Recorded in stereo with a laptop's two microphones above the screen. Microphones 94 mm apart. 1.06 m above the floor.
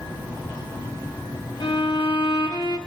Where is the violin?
60° left (ahead or behind), 1.0 m.